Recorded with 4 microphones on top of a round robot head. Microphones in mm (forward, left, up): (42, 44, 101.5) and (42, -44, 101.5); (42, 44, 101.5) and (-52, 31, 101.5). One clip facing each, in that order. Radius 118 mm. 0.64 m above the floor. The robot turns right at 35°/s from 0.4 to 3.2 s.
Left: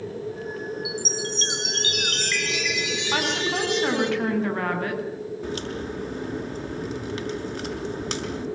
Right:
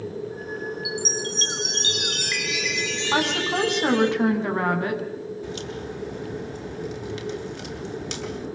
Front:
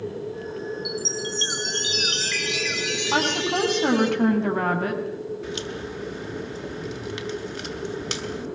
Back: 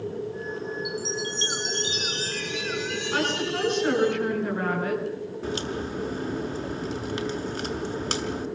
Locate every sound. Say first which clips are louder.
0.8 s a chime: right 1 dB, front 1 dB; 60° right, 5 m; by 4.1 s 20° left, 5 m
3.1 s a woman speaking: right 3 dB, front 4 dB; 25° right, 7.5 m; by 5.0 s 20° right, 7.5 m
5.4 s a crack: left 2 dB, back 2 dB; 135° left, 5.5 m